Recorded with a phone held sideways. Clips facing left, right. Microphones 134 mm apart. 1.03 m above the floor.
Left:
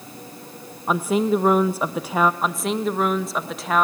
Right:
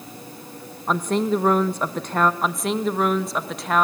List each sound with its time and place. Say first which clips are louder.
0.9 s a woman speaking: left 2 dB; 5° left (ahead or behind), 0.7 m
2.4 s a woman speaking: even; centre (ahead or behind), 1.2 m